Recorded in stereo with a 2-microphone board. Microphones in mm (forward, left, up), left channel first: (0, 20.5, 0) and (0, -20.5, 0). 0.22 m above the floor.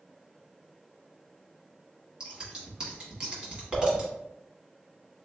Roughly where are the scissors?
Centre.